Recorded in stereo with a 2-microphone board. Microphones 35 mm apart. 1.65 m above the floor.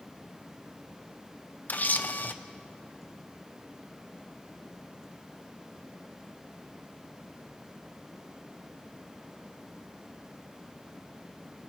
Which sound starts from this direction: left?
A camera shutter, at 1.7 s.